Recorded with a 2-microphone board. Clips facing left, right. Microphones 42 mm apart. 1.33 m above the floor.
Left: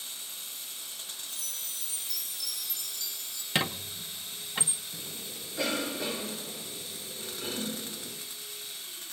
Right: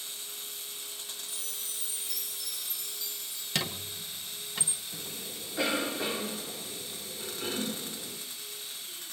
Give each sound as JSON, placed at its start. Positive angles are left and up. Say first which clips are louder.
{"t": 1.3, "sound": "a chime", "louder": "even", "side_deg": -10, "distance_m": 7.0}
{"t": 3.5, "sound": "a squeak", "louder": "left 4 dB", "side_deg": 20, "distance_m": 0.7}
{"t": 4.9, "sound": "a cough", "louder": "right 1 dB", "side_deg": -25, "distance_m": 1.8}